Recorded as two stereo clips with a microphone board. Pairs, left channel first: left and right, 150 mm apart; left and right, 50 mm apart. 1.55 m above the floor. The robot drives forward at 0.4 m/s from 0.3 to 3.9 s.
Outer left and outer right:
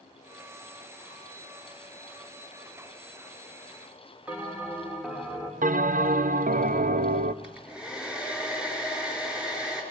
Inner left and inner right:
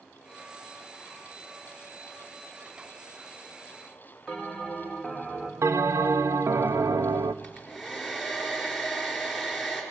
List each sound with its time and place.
4.3 s a bell: 10° right (ahead or behind), 2.5 m
5.6 s a bell: 60° right (ahead or behind), 0.6 m
7.4 s a hair dryer: 5° right (ahead or behind), 4 m